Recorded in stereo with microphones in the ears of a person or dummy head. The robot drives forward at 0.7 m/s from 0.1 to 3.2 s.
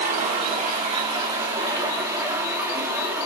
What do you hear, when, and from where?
0.0 s running water: 40° right (ahead or behind), 1.1 m; by 3.3 s 15° right (ahead or behind), 3 m